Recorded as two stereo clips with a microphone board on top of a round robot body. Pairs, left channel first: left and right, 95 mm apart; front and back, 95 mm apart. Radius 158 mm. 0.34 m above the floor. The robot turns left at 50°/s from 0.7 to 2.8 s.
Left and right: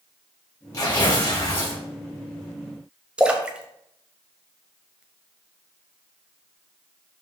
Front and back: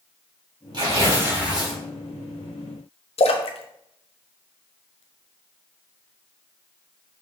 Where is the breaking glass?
I don't hear breaking glass.